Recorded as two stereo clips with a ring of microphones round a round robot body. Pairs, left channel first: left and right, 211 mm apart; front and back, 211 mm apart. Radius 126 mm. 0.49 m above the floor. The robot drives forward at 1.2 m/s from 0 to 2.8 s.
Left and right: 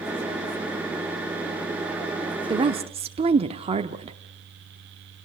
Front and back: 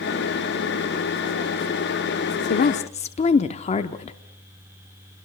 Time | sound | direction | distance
2.5 | a woman speaking | 25° right | 1.1 m